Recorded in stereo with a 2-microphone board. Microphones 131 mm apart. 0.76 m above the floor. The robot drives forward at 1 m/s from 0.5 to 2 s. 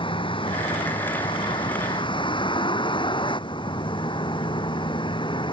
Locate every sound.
0.0 s a vehicle: 40° left (ahead or behind)